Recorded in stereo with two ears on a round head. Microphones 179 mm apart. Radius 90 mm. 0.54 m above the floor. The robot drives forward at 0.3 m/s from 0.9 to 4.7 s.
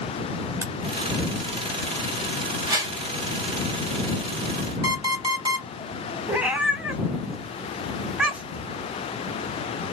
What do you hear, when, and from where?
0.6 s a crack: 15° right (ahead or behind), 1.0 m
2.7 s a whoosh: 20° right (ahead or behind), 2.5 m
4.8 s an alarm clock: 20° right (ahead or behind), 0.9 m
6.3 s a cat meowing: 5° right (ahead or behind), 1.1 m